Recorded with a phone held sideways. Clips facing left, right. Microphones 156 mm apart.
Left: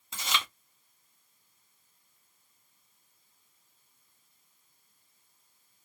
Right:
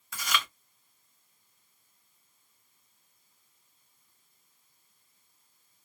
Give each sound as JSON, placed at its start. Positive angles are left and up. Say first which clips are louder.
{"t": 0.1, "sound": "chewing", "louder": "right 2 dB", "side_deg": 25, "distance_m": 0.8}